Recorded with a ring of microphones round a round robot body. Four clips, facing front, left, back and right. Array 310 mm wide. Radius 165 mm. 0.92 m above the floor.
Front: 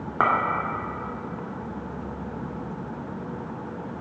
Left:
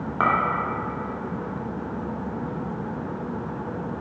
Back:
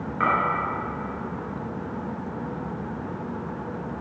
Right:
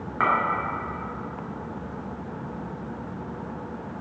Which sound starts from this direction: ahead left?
A clink, at 0.2 s.